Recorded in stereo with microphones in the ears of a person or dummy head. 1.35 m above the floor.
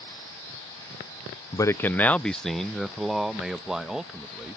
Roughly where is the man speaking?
Left.